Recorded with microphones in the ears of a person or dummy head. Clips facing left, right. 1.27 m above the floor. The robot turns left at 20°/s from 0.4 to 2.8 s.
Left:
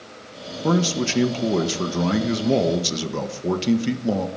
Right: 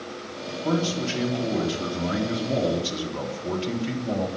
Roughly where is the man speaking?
Behind left.